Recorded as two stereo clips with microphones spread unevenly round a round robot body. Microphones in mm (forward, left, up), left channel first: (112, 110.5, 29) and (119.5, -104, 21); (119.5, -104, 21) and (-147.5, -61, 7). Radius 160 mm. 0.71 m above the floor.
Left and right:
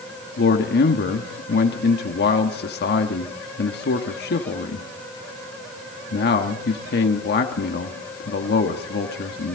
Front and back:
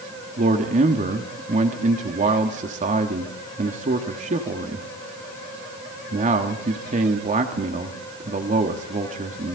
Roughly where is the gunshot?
I don't hear a gunshot.